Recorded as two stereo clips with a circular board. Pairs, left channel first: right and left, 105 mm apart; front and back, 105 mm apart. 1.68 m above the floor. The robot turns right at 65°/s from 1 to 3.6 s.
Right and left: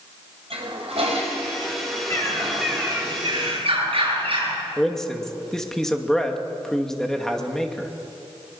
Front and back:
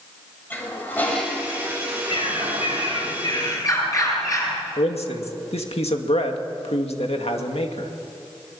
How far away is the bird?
About 8.5 m.